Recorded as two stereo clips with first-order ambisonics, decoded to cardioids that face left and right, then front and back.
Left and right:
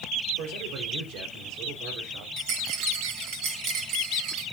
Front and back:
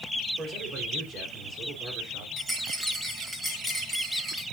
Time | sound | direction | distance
0.4 | a man speaking | 115° right | 3.5 m
2.4 | a rattle | 100° right | 3.5 m